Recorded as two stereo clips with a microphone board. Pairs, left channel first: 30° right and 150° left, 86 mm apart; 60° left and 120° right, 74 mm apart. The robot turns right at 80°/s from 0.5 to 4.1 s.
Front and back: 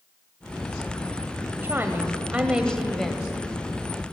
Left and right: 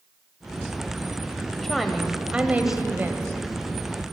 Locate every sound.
1.6 s a woman speaking: 140° left, 1.0 m; by 3.3 s 90° right, 1.0 m